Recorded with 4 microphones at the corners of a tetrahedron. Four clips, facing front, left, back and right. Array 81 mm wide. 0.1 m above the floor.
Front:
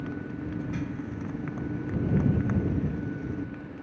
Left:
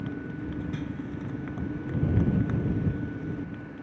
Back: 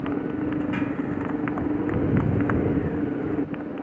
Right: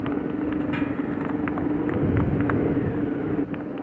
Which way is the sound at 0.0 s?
130° right.